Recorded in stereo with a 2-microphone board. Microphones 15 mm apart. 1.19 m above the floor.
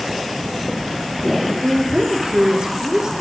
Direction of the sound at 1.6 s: 50° right (ahead or behind).